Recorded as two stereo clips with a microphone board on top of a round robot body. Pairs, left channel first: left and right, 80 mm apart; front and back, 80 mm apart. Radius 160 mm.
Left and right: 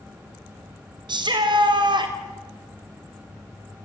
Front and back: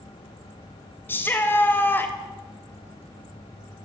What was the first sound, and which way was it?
A shout, 65° right.